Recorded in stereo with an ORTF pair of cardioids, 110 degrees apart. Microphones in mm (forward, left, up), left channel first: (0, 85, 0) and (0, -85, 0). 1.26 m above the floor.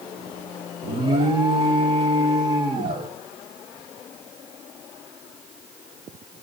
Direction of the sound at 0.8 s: 30° right.